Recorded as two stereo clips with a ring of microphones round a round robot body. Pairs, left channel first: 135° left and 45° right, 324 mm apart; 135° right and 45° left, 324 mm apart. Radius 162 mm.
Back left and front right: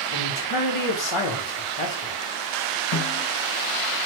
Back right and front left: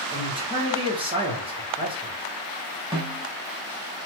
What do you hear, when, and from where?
0.1 s a man speaking: 120° left, 1.1 m
2.9 s a snare drum: 120° left, 1.0 m